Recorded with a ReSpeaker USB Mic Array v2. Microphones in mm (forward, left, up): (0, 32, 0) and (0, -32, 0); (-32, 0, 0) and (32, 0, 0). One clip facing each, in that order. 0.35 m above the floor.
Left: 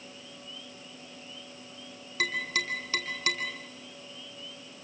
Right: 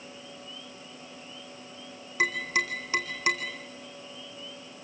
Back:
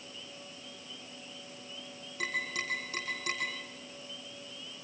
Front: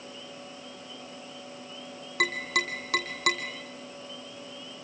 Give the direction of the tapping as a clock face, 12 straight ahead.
1 o'clock.